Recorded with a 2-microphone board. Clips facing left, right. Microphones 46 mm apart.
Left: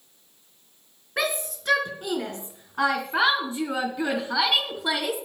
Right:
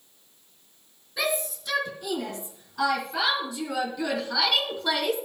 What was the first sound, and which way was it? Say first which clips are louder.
A shout: left 1 dB; 55° left (ahead or behind).